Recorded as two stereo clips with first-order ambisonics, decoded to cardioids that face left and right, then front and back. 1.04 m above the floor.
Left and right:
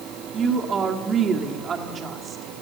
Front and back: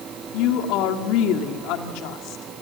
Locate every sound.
0.3 s a woman speaking: 25° right, 2.0 m